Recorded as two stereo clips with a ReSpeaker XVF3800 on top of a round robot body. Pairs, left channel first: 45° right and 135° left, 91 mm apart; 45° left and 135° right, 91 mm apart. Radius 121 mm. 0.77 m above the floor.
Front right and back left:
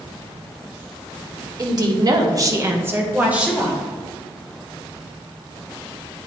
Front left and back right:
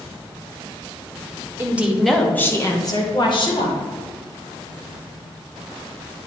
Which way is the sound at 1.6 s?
165° left.